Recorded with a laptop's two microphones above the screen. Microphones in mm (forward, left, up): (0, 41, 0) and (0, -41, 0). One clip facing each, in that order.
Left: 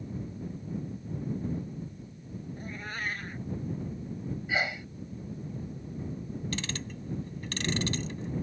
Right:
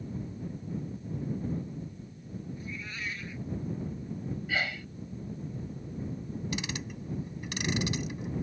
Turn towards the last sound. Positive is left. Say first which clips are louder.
# even
turn(degrees=-10)  # may be behind; listen again after turning